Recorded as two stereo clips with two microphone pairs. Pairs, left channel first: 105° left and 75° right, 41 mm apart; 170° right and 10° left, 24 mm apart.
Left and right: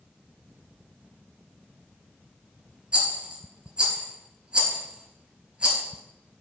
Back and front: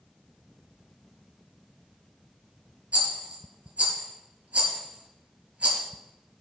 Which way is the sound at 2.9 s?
15° right.